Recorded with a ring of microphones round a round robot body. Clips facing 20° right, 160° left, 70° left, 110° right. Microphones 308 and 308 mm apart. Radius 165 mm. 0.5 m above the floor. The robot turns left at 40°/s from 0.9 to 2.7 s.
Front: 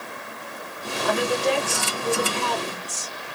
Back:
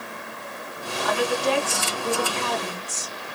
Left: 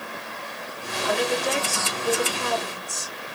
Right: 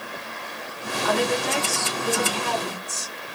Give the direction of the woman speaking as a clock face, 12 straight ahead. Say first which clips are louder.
Front 1 dB, right 1 dB; 3 o'clock.